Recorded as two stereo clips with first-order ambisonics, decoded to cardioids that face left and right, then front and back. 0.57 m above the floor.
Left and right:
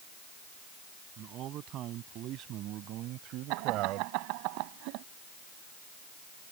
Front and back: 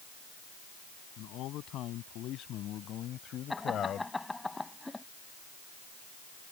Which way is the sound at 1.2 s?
40° right.